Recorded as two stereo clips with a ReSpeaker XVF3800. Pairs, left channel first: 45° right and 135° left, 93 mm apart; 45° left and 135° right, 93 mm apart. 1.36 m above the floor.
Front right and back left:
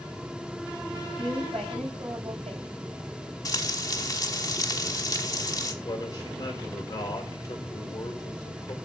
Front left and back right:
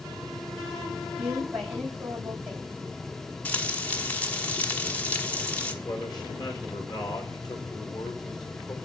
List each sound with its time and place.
1.2 s a woman speaking: 150° left, 6 m
3.5 s frying: 20° right, 1.1 m
5.8 s a man speaking: 5° left, 4 m